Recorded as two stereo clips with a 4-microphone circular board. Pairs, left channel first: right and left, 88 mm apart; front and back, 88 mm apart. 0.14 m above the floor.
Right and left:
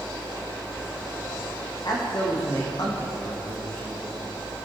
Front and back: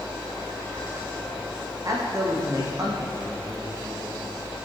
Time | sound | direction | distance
1.8 | a man speaking | 130° right | 7.5 m